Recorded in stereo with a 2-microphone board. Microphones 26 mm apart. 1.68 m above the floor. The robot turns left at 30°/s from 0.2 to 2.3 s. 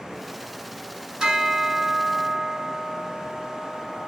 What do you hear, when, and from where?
1.2 s a bell: 20° right (ahead or behind), 1.5 m; by 4.1 s 25° right (ahead or behind), 1.5 m